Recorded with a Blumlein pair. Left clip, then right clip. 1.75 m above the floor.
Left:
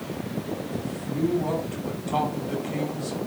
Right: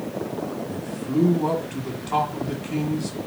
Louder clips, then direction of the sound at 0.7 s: Right 5 dB; 40° right.